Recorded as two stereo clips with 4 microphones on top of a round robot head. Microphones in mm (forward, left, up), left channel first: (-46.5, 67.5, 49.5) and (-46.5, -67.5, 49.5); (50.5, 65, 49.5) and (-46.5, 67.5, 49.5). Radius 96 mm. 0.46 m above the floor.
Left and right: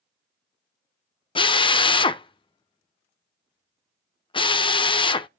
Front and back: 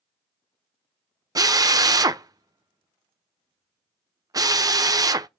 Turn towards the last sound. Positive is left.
turn(degrees=135)